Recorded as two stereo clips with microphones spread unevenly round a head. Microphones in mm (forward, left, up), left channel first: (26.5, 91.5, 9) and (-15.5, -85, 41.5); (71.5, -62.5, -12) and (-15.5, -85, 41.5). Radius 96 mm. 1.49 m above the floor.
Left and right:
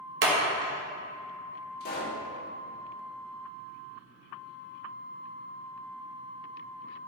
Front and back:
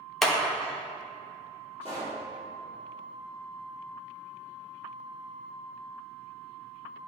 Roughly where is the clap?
Right.